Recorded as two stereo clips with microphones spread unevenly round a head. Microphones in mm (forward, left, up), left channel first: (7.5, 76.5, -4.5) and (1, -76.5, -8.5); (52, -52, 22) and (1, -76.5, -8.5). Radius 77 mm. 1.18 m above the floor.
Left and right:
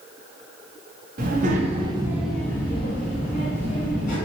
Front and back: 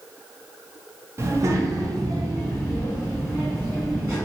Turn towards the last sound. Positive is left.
turn(degrees=120)